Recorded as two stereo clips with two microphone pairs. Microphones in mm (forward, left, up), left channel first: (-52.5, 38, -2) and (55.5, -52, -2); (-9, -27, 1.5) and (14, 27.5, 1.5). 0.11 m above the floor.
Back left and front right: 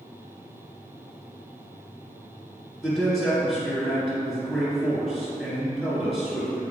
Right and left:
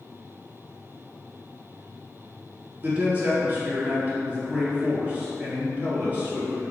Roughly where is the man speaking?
Ahead left.